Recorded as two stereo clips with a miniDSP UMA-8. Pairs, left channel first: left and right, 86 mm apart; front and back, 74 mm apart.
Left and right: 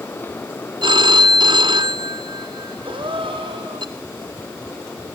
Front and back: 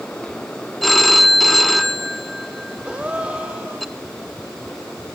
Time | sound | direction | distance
0.8 | a phone ringing | 90° right | 1.2 m
2.9 | a gasp | 105° right | 3.5 m